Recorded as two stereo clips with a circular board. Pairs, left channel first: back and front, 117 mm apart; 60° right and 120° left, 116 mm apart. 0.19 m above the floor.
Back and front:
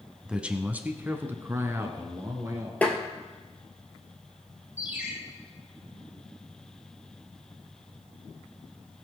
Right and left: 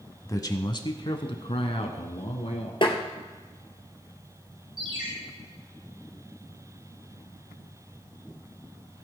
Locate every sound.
0.2 s a man speaking: 75° right, 1.0 m; by 2.7 s 65° right, 2.5 m
2.8 s tapping: 105° right, 1.8 m
4.8 s a ringtone: 75° left, 4.5 m